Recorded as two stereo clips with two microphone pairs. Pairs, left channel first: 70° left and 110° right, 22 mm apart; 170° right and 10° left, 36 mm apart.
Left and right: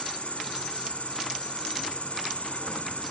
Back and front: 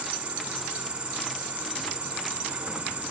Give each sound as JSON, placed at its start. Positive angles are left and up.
{"t": 0.0, "sound": "an insect", "azimuth_deg": 70, "distance_m": 2.5}